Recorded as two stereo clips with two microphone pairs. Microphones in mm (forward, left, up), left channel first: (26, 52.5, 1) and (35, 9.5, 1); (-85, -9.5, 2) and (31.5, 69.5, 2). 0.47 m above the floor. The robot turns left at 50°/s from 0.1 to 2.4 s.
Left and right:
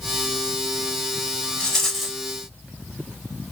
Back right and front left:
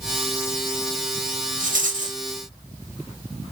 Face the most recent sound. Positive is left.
turn(degrees=-10)